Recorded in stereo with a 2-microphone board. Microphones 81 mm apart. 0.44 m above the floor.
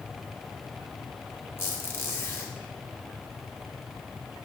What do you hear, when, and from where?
1.6 s a squeak: 30° left (ahead or behind), 0.7 m